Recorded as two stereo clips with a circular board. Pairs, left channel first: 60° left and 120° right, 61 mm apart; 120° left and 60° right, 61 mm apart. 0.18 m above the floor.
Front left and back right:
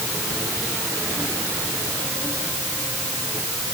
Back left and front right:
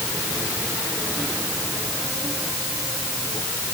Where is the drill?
No drill in this recording.